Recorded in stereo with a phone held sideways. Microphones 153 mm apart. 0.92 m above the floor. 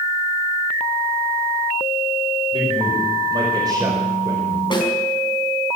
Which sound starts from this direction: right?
A man speaking, at 2.5 s.